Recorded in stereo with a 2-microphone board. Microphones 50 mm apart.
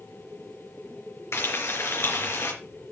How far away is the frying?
About 3.5 m.